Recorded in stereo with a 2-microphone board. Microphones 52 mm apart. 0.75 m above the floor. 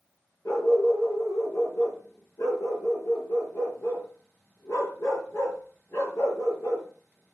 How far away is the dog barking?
About 6 m.